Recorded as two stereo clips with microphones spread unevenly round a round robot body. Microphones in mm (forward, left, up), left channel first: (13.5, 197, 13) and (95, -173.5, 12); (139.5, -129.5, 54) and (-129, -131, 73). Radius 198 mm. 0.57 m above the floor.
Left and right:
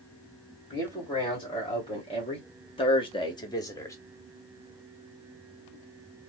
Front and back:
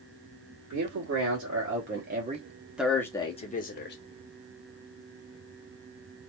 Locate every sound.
0.7 s a man speaking: straight behind, 1.7 m; by 4.0 s 20° left, 1.2 m